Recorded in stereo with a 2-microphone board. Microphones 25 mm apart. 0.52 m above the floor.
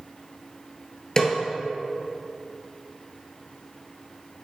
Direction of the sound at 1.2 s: 25° left (ahead or behind).